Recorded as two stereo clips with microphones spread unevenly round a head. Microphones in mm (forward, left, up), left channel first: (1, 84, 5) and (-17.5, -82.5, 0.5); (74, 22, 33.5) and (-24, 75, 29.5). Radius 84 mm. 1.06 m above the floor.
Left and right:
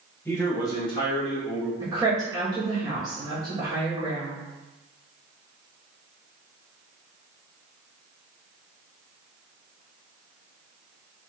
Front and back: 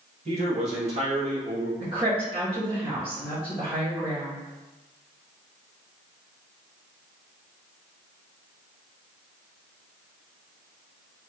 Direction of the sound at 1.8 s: 165° right.